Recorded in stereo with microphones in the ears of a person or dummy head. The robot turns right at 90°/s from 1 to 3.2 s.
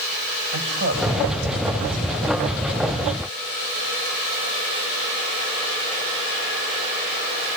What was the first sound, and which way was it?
A woman speaking, 50° right (ahead or behind).